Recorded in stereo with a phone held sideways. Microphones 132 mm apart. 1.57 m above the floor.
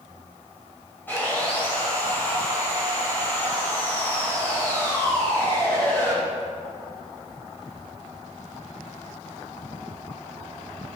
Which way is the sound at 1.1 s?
15° left (ahead or behind).